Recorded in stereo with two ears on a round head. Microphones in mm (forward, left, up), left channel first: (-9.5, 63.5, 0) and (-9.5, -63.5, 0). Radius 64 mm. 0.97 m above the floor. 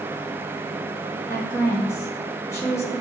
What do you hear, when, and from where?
1.3 s a woman speaking: 20° left (ahead or behind), 1.2 m